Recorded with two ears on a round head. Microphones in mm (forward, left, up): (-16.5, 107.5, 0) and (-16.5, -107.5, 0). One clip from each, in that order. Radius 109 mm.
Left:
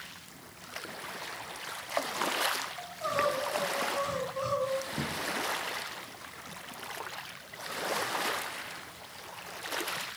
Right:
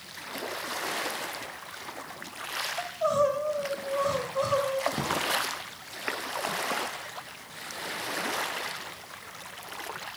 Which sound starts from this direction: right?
A drawer, at 4.9 s.